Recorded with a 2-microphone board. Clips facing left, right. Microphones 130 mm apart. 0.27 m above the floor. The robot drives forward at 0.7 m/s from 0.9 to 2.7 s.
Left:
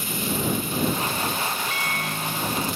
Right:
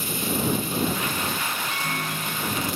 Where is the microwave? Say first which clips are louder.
Even; 30° right (ahead or behind), 0.8 m; by 2.7 s 25° right (ahead or behind), 0.9 m.